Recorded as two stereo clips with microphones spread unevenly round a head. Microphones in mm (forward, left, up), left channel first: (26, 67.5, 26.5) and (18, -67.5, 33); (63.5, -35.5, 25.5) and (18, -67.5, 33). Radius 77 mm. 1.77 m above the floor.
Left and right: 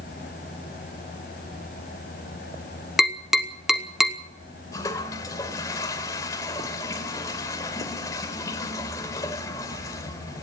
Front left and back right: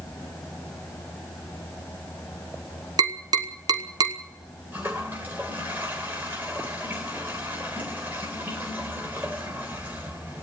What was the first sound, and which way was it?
Tapping, straight behind.